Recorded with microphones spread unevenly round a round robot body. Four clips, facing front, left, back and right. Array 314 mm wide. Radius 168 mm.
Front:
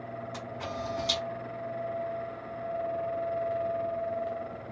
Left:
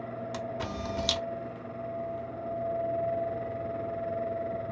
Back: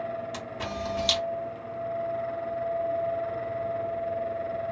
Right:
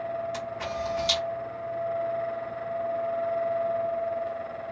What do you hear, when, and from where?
0.3 s a camera shutter: 125° left, 0.7 m